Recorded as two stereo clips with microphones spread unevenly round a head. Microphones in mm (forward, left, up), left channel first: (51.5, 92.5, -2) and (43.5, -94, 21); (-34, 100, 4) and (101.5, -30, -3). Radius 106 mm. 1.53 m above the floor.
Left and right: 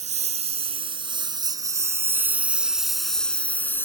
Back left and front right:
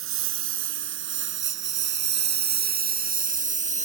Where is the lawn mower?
45° right; by 3.9 s 10° left.